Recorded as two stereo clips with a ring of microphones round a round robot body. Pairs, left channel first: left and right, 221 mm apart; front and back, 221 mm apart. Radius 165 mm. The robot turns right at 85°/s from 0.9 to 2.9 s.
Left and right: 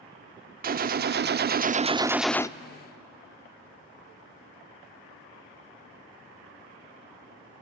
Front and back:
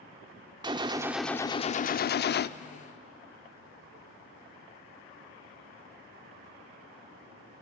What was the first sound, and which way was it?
A gunshot, 115° right.